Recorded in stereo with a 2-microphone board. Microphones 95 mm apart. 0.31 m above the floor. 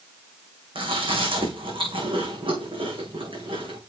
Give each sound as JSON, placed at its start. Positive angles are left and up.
{"t": 0.8, "sound": "chewing", "side_deg": -65, "distance_m": 4.5}